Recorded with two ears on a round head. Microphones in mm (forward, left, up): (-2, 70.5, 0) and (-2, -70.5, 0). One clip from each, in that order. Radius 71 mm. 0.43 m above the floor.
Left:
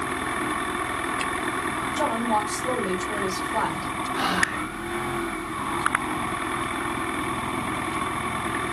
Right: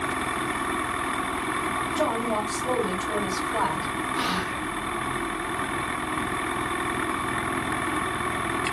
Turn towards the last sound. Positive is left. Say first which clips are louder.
# left 6 dB
turn(degrees=0)  # may be behind; listen again after turning